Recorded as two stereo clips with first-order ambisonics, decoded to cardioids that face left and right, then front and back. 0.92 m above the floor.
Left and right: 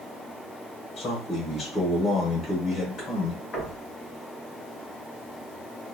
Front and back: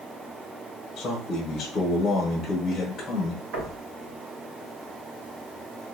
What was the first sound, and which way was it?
A man speaking, 55° left.